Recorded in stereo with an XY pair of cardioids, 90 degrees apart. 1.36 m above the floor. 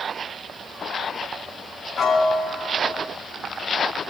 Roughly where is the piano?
Left.